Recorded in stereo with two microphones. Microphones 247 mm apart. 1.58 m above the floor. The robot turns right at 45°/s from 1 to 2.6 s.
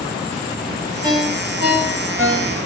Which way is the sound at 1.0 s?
15° right (ahead or behind).